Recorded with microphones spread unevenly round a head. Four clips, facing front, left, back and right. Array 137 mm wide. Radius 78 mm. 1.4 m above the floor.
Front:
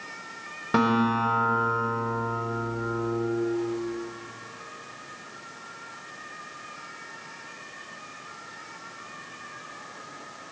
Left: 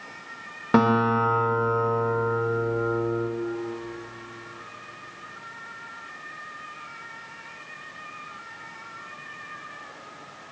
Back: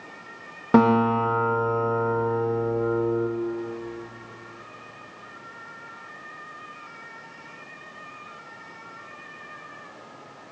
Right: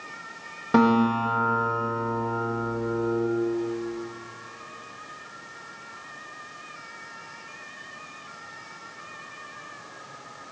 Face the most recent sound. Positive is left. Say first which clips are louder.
# even, back 5 dB
turn(degrees=160)